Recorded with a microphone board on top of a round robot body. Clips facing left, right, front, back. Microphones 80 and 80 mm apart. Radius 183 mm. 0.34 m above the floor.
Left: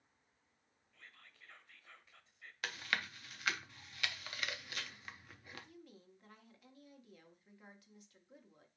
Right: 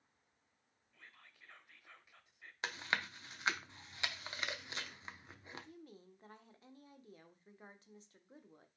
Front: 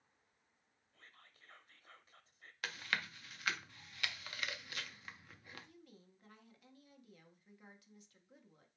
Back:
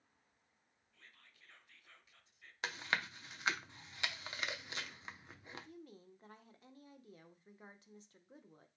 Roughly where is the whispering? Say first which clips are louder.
Even, front 1 dB; ahead.